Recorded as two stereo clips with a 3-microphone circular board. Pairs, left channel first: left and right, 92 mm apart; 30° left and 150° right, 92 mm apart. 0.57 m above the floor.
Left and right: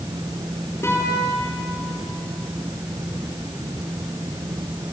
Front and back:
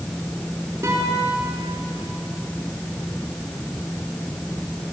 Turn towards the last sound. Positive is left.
turn(degrees=155)